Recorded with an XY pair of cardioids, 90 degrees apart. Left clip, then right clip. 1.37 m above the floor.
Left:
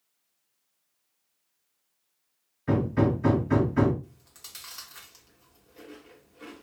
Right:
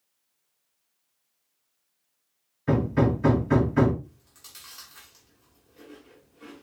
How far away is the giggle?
No giggle in this recording.